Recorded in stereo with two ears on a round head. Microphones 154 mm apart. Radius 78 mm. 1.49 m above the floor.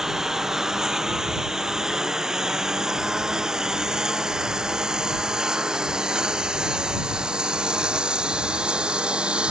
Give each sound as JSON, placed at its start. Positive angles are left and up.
{"t": 0.0, "sound": "a lawn mower", "side_deg": -5}